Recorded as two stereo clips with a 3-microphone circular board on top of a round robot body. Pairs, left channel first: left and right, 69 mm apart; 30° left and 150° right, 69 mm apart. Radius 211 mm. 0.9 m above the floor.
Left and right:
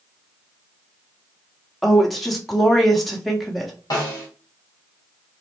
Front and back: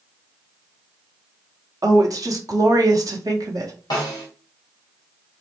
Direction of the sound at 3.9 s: 55° left.